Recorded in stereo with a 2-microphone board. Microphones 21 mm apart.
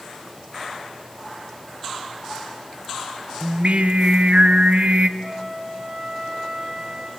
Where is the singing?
70° right (ahead or behind), 1.2 m.